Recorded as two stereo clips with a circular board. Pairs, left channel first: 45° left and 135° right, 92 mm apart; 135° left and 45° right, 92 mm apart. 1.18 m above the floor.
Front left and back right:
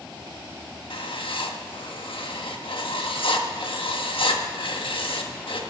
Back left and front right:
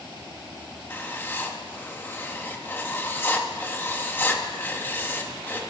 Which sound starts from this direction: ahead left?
Writing, at 0.9 s.